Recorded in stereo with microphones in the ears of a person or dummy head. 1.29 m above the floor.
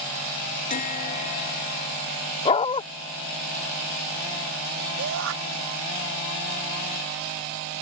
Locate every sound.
0.7 s a bell: 35° left (ahead or behind)
2.5 s a dog barking: 30° left (ahead or behind)
5.0 s a shout: 65° right (ahead or behind)